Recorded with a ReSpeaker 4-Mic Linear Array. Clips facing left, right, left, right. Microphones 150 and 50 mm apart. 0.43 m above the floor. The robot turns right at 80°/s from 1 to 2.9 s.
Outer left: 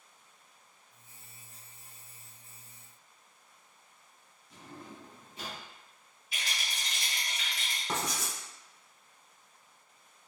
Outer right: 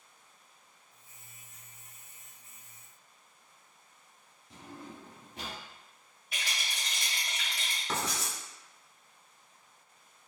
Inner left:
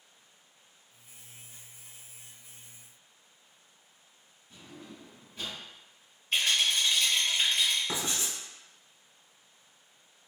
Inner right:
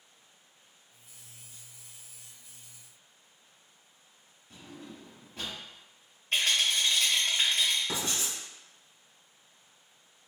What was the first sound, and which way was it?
A drawer, 65° right (ahead or behind).